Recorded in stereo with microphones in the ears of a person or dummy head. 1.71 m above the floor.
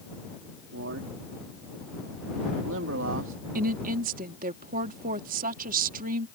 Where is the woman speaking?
45° right (ahead or behind).